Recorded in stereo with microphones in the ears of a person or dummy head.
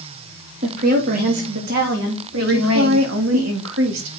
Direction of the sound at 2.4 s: 70° right (ahead or behind).